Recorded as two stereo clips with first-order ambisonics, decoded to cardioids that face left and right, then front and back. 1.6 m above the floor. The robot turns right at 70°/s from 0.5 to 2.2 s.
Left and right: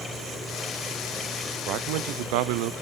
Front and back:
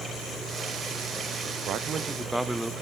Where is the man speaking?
130° right, 0.8 m; by 2.7 s 95° right, 0.8 m.